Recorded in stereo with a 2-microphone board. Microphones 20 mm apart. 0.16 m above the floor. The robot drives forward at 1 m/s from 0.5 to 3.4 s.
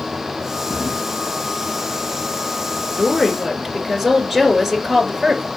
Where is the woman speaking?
20° right (ahead or behind), 1.8 m; by 5.5 s 15° right (ahead or behind), 2 m.